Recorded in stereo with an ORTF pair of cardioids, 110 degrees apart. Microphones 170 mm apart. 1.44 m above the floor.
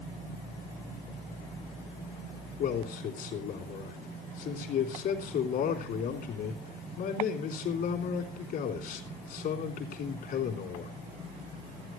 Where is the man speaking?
60° left, 3.5 m.